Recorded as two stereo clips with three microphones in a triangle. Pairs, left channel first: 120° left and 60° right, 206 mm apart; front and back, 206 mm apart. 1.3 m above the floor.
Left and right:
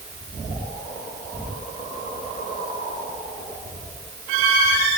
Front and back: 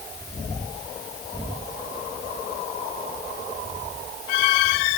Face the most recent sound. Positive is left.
No sound to turn to.